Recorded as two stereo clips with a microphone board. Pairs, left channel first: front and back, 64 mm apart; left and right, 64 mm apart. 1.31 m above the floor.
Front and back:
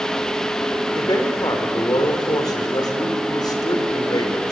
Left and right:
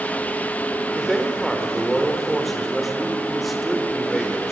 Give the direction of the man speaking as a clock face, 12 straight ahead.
12 o'clock.